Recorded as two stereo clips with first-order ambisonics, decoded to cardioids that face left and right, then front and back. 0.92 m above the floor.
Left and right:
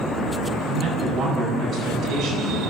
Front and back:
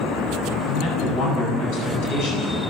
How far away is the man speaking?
About 8.5 m.